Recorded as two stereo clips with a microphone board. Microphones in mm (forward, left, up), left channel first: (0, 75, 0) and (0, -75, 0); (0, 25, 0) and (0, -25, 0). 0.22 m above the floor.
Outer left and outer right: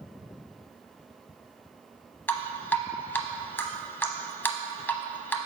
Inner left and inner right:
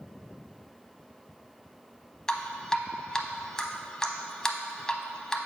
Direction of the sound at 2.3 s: 15° left (ahead or behind).